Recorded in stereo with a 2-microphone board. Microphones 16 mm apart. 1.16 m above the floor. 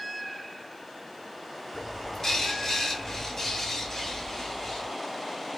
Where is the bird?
35° left (ahead or behind), 2.5 m.